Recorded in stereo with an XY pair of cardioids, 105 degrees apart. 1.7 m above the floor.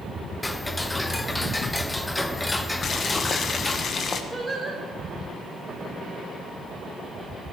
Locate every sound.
0.4 s ticking: 15° left, 1.1 m
2.8 s boiling: 50° left, 1.4 m
4.3 s singing: 15° right, 3.5 m